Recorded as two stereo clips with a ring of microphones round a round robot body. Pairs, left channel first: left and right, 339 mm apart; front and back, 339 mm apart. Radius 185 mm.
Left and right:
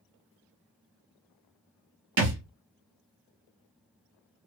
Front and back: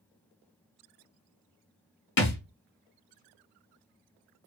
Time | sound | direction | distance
2.2 | a thud | 45° right | 0.8 m